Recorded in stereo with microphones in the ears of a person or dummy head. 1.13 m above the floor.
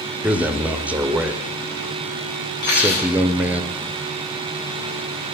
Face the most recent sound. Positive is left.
turn(degrees=55)  # may be behind; listen again after turning